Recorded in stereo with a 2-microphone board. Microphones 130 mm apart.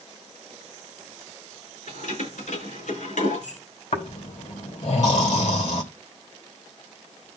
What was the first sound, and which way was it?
Keys jangling, 80° left.